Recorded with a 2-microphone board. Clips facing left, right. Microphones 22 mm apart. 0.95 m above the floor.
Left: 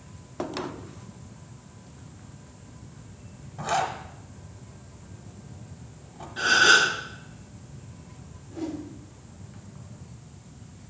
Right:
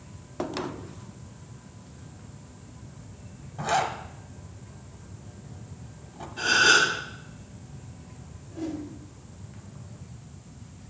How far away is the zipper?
About 1.1 m.